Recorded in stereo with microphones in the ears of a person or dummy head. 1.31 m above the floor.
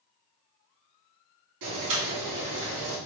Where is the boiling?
70° right (ahead or behind), 2 m.